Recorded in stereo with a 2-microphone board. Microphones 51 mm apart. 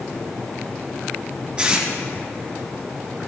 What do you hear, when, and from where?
1.6 s tape being pulled: 20° right (ahead or behind), 7 m